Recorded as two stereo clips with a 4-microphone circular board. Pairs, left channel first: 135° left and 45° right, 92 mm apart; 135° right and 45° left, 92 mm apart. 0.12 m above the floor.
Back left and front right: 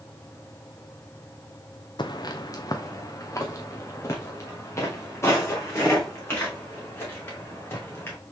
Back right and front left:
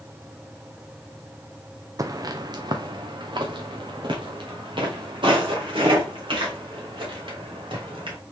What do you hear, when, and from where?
2.0 s footsteps: 100° left, 0.5 m; by 8.2 s 70° left, 3.5 m